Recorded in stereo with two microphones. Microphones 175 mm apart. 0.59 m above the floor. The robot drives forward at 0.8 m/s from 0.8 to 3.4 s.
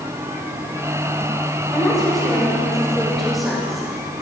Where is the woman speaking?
Centre (ahead or behind), 3.5 m.